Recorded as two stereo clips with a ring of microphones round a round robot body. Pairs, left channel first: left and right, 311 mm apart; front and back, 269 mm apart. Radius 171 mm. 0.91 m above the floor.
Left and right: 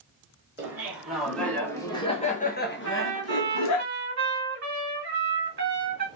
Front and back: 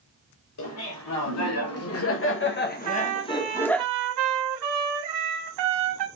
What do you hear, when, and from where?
0.6 s laughter: 10° right, 2 m; by 3.8 s 85° left, 1.4 m
2.8 s a trumpet: 145° right, 1.8 m